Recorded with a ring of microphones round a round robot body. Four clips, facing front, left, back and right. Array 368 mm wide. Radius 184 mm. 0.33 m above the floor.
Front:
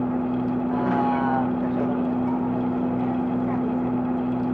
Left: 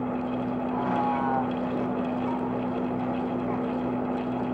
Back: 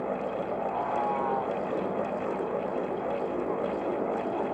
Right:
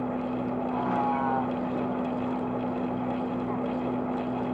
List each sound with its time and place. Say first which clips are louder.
0.0 s a vehicle: left 1 dB, front 7 dB; straight ahead